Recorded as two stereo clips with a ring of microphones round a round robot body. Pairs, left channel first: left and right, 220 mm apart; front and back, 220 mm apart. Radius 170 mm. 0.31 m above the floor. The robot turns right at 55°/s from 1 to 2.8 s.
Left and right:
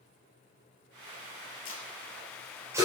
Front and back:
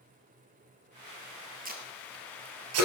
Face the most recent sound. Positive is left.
turn(degrees=-170)